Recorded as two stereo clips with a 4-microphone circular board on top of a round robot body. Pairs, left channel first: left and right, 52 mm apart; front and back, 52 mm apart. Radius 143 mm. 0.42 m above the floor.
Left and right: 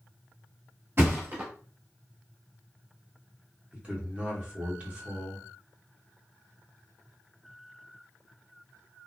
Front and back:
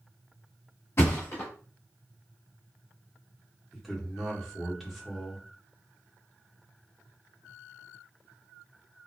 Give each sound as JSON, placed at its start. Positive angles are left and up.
{"t": 1.0, "sound": "a thud", "azimuth_deg": -45, "distance_m": 0.8}
{"t": 3.7, "sound": "a man speaking", "azimuth_deg": -90, "distance_m": 1.4}